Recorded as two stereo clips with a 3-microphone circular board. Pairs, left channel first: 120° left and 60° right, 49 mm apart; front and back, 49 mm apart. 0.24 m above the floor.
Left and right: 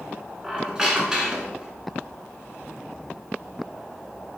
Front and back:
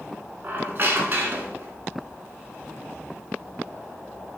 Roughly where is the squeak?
Behind right.